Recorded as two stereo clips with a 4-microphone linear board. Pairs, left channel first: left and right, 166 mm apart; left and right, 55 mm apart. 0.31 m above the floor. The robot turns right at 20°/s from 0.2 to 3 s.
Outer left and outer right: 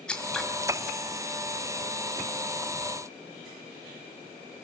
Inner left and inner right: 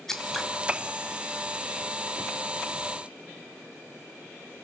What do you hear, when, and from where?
0.1 s scissors: 5° left (ahead or behind), 2 m; by 0.5 s centre (ahead or behind), 2 m